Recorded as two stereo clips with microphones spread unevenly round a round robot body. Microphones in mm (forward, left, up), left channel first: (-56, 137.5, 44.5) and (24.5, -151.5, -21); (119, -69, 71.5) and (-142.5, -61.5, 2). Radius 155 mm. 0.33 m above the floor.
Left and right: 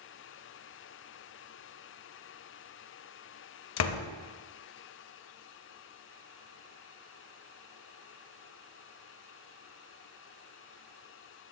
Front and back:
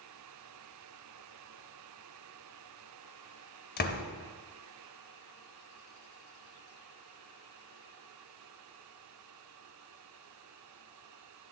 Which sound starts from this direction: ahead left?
A door slam, at 3.8 s.